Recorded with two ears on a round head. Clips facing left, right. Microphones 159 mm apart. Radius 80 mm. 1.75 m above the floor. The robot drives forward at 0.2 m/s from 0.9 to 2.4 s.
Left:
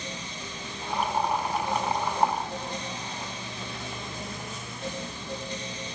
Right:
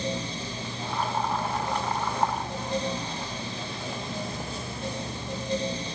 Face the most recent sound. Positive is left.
No sound to turn to.